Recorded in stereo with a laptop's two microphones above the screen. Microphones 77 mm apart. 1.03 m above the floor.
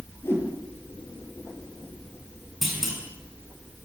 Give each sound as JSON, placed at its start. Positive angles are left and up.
{"t": 0.2, "sound": "a whoosh", "side_deg": 30, "distance_m": 6.5}
{"t": 2.6, "sound": "a clunk", "side_deg": 0, "distance_m": 6.5}